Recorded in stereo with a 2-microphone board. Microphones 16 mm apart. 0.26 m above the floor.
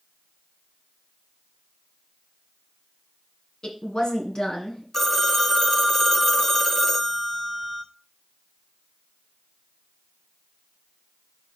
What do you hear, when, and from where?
3.6 s a woman speaking: 65° left (ahead or behind), 2 m
4.9 s a phone ringing: 20° left (ahead or behind), 0.9 m